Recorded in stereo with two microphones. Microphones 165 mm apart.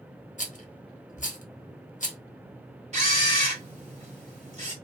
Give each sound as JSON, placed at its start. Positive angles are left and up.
{"t": 0.4, "sound": "a rattle", "side_deg": 50, "distance_m": 0.8}
{"t": 2.9, "sound": "a camera shutter", "side_deg": -40, "distance_m": 1.4}